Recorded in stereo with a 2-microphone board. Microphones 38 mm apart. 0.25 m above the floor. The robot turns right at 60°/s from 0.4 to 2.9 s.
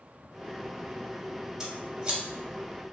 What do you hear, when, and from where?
1.6 s scissors: 15° right (ahead or behind), 0.6 m; by 2.2 s 25° right (ahead or behind), 0.6 m